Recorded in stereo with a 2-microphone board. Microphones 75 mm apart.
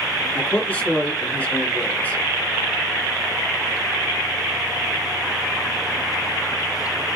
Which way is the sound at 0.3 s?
20° left (ahead or behind).